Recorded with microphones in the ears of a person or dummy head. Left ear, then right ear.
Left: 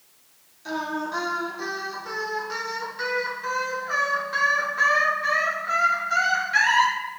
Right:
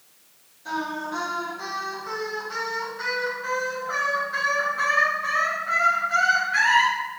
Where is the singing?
30° left (ahead or behind), 0.7 m.